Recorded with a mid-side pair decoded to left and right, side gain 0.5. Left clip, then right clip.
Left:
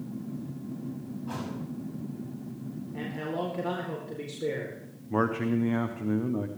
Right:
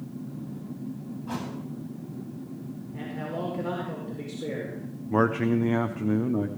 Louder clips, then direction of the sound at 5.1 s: Right 4 dB; 25° right.